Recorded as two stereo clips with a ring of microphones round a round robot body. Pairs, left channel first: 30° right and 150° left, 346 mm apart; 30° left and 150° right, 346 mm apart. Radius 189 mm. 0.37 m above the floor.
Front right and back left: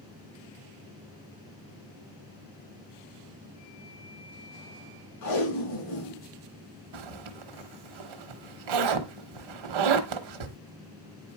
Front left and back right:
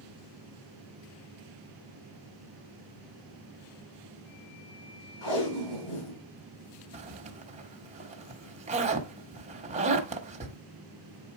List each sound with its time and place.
5.2 s tape being pulled: 10° left, 5.5 m
6.9 s a zipper: 140° left, 1.0 m